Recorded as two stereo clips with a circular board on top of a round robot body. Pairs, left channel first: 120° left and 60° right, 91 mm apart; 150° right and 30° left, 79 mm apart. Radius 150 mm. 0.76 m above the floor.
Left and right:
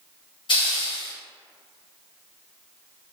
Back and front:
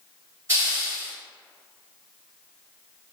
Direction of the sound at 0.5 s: 85° left.